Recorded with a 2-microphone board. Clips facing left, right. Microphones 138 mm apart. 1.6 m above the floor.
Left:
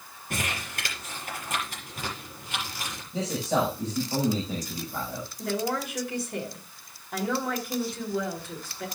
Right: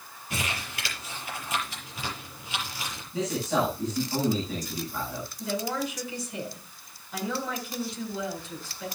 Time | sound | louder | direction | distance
0.3 | crumpling | left 1 dB | 50° left (ahead or behind) | 6.5 m
3.1 | a man speaking | even | 35° left (ahead or behind) | 7.5 m
5.4 | a woman speaking | left 1 dB | 60° left (ahead or behind) | 7 m